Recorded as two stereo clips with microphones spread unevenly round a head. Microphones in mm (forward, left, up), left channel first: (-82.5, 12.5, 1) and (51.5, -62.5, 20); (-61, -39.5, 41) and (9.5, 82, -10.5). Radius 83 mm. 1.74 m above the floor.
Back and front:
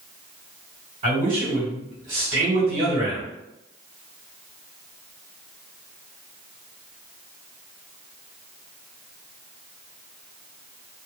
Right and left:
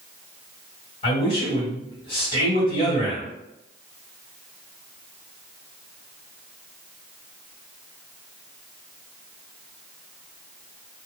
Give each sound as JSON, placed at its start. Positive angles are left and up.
{"t": 1.0, "sound": "a man speaking", "azimuth_deg": -60, "distance_m": 1.4}